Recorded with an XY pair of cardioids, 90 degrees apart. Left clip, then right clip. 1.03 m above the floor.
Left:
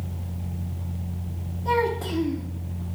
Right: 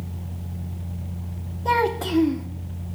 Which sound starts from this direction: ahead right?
A child speaking, at 1.6 s.